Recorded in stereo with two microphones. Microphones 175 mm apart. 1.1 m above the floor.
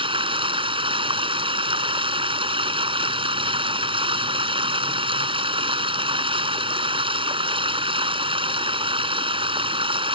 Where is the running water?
30° right (ahead or behind).